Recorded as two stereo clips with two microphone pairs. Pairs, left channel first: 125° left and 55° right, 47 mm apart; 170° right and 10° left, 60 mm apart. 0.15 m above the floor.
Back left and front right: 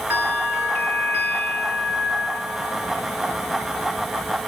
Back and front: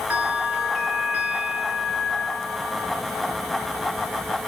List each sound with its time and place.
0.1 s a bell: 45° right, 2.5 m